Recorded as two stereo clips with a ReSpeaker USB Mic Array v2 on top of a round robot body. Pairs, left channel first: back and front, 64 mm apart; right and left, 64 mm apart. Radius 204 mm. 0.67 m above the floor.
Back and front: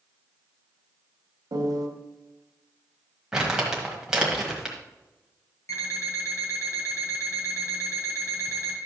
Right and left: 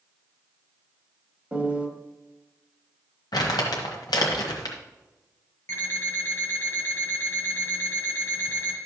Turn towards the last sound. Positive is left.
turn(degrees=-140)